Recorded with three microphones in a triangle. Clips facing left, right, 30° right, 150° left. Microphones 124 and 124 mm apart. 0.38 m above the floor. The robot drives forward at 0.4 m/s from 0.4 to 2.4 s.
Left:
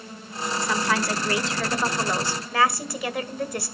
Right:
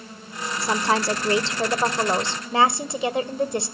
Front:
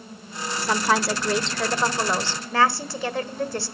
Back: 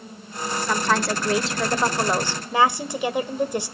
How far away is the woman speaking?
About 1.2 m.